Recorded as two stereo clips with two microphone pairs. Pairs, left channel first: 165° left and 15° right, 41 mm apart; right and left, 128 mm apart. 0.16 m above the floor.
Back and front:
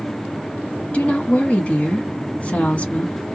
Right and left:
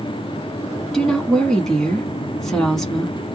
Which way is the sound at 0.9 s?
170° right.